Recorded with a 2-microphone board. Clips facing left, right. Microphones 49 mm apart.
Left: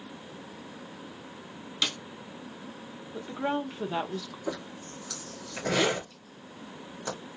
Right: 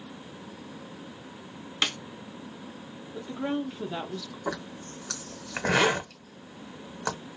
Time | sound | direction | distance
1.8 | a snare drum | 35° right (ahead or behind) | 0.6 m
3.1 | a woman speaking | 15° left (ahead or behind) | 0.7 m
4.5 | a zipper | 60° right (ahead or behind) | 1.3 m